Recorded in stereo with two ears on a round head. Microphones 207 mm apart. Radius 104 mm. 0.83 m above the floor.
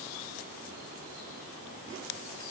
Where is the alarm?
I don't hear an alarm.